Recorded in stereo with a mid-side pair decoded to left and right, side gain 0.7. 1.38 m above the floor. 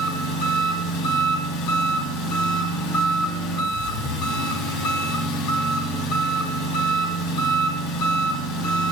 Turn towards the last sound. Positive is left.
turn(degrees=65)